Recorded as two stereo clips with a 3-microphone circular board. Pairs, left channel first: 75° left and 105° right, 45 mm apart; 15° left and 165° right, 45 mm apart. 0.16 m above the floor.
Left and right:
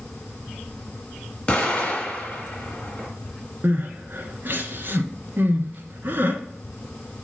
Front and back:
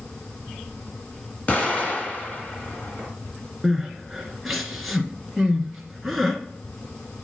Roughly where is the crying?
Right.